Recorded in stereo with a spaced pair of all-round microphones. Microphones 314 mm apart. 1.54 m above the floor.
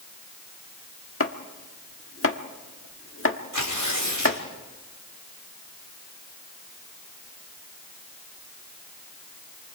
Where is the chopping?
45° left (ahead or behind), 1.4 m.